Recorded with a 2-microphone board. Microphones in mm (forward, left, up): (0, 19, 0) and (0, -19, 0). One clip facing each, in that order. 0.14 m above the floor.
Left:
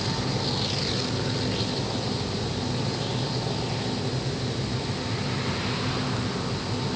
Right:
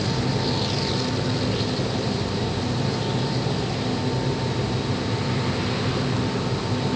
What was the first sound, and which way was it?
Only background noise.